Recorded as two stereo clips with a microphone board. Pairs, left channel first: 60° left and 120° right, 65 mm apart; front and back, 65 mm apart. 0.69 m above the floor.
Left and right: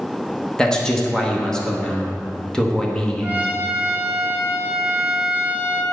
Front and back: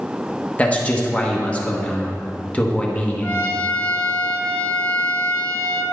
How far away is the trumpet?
About 1.4 m.